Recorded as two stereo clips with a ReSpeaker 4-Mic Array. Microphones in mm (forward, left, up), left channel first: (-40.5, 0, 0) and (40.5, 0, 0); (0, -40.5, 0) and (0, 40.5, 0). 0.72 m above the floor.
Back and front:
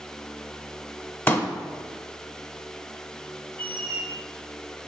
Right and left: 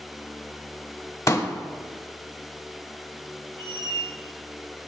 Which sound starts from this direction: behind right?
A pop, at 1.3 s.